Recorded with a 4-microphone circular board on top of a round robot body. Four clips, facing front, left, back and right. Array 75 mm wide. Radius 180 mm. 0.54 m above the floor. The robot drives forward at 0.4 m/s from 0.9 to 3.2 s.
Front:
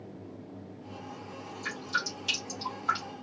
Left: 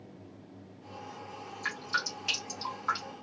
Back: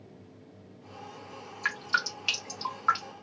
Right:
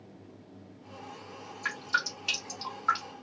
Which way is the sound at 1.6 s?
Straight behind.